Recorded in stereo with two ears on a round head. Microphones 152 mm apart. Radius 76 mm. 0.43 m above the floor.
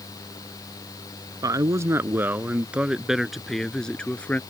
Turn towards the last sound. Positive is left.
turn(degrees=10)  # may be behind; listen again after turning